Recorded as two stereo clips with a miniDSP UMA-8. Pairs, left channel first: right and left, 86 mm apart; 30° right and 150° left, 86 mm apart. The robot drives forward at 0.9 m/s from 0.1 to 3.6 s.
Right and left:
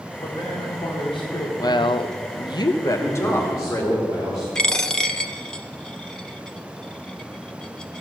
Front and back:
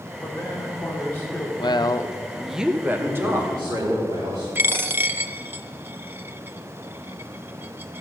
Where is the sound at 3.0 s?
150° right, 4.5 m.